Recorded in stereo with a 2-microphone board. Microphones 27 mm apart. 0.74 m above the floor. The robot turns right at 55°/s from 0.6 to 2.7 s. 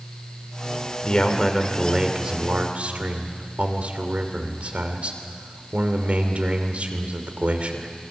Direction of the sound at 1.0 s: 145° left.